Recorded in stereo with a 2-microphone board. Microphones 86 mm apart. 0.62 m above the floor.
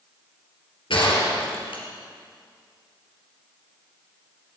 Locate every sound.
0.9 s a gunshot: 85° left, 4 m